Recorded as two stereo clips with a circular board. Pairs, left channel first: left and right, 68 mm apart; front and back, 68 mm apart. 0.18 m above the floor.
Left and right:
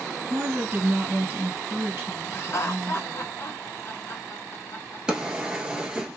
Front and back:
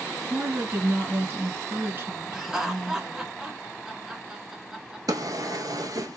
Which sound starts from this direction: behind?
A drawer, at 5.1 s.